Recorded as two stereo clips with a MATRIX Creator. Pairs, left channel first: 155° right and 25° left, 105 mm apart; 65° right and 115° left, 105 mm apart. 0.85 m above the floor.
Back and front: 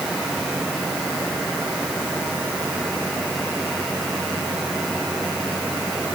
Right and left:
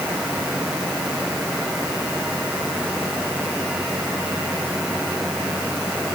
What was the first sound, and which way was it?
Only background noise.